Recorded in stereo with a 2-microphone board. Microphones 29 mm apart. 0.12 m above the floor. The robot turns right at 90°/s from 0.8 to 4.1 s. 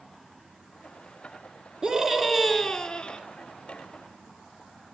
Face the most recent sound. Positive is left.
turn(degrees=145)